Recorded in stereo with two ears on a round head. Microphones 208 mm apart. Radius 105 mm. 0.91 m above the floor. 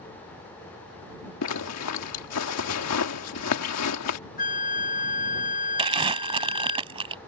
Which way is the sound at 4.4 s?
35° left (ahead or behind).